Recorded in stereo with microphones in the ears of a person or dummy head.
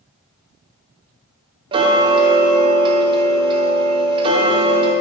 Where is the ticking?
25° right (ahead or behind), 1.0 m.